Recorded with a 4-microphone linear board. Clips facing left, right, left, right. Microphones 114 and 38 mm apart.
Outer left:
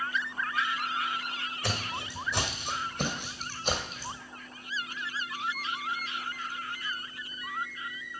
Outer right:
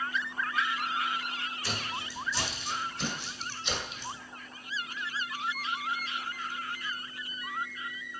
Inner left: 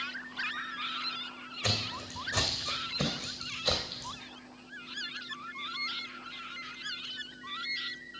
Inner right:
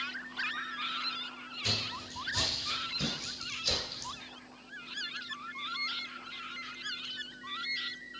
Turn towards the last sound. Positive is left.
turn(degrees=35)  # may be behind; listen again after turning